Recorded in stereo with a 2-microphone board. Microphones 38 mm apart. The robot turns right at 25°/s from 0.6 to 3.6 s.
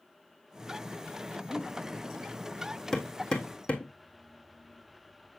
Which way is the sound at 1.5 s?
30° right (ahead or behind).